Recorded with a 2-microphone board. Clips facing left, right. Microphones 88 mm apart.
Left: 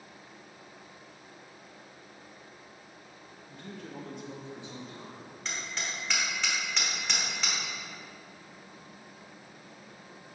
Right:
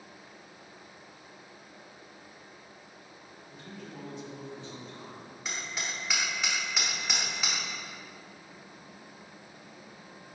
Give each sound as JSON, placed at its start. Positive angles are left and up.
{"t": 3.5, "sound": "a man speaking", "side_deg": 70, "distance_m": 1.4}
{"t": 5.5, "sound": "hammering", "side_deg": -10, "distance_m": 1.3}